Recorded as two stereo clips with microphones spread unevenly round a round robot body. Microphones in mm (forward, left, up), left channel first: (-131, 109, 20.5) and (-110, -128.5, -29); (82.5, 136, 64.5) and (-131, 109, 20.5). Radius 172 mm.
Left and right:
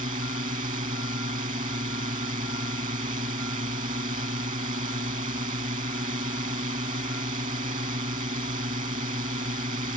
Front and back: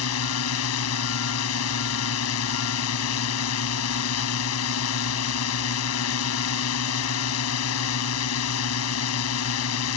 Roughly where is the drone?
Ahead.